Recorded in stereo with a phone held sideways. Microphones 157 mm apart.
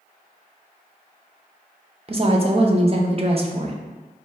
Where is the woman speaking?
40° right (ahead or behind), 0.5 m.